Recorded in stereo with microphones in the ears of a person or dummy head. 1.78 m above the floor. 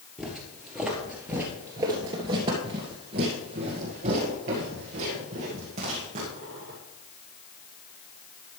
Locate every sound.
0.2 s footsteps: centre (ahead or behind), 2 m; by 6.8 s 40° right (ahead or behind), 3 m